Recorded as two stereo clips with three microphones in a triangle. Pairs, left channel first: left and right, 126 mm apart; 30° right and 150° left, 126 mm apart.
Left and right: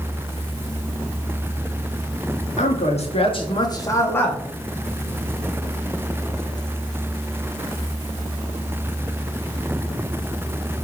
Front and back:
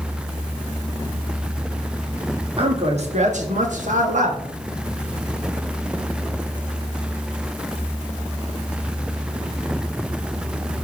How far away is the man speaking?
About 1.6 m.